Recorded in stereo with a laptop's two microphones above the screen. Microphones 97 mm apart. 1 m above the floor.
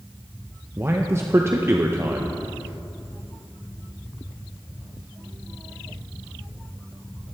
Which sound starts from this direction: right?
A man speaking, at 0.8 s.